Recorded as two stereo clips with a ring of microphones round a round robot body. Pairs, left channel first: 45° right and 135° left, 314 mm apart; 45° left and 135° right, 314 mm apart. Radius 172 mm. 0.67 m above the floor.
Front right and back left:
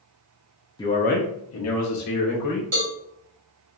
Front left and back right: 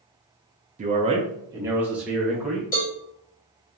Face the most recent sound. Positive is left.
turn(degrees=105)